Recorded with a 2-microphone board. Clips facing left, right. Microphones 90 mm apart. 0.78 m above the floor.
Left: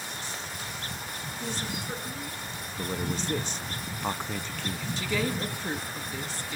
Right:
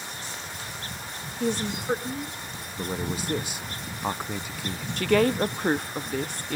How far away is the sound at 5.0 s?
About 0.7 m.